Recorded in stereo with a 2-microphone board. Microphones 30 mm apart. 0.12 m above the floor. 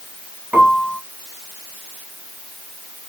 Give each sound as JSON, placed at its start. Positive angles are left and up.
{"t": 0.5, "sound": "a piano", "side_deg": -55, "distance_m": 1.7}